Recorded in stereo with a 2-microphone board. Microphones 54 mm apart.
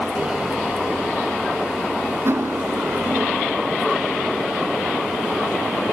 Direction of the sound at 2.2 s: 55° right (ahead or behind).